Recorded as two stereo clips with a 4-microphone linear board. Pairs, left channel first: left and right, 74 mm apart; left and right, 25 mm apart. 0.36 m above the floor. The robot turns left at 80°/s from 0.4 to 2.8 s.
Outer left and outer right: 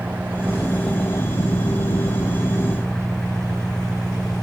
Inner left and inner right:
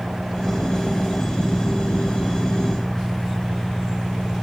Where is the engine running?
160° right; by 4.5 s 10° left.